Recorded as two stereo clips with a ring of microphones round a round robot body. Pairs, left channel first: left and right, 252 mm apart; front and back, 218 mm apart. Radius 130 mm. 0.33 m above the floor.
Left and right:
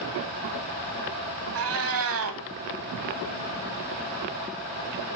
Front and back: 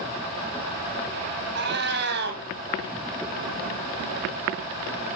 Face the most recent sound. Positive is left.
turn(degrees=-125)